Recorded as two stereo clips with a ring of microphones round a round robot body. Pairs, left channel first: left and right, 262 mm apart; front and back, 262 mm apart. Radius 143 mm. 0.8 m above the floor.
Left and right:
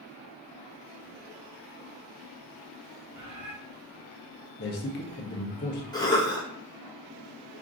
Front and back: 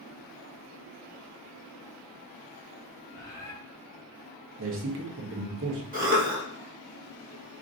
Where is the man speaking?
140° left, 0.8 m.